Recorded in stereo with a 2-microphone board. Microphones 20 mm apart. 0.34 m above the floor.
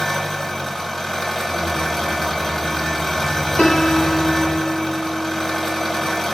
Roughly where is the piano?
Left.